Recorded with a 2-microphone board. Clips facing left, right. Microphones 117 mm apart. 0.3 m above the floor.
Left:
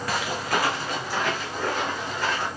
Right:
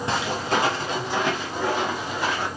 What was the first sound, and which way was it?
Footsteps, 25° right (ahead or behind).